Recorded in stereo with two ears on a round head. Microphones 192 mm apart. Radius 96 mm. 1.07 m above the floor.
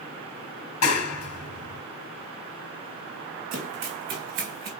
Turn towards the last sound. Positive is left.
turn(degrees=-65)  # may be behind; listen again after turning